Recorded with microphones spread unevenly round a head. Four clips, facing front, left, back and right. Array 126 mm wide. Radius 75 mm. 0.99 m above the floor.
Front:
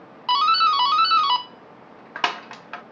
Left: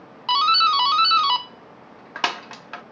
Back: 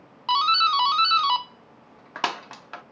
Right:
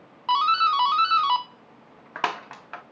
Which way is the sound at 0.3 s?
35° left.